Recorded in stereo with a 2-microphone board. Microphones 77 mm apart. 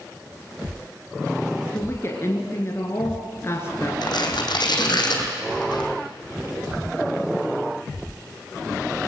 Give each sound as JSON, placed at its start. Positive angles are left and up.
{"t": 1.7, "sound": "a woman speaking", "side_deg": 35, "distance_m": 2.5}
{"t": 4.0, "sound": "tearing paper", "side_deg": 70, "distance_m": 3.5}